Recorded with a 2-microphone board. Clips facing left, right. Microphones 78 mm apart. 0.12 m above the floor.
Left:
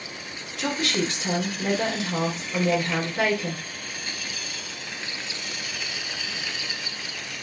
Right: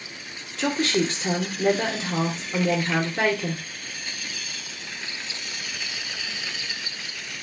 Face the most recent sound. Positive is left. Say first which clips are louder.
# right 3 dB
turn(degrees=-35)  # may be behind; listen again after turning